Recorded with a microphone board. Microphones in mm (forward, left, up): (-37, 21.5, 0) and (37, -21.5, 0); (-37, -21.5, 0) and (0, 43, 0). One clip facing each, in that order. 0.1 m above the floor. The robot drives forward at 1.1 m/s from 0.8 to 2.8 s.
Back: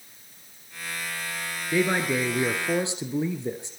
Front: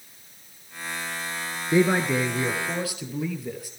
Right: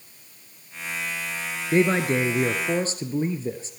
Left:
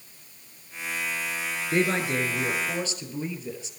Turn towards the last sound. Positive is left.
turn(degrees=-155)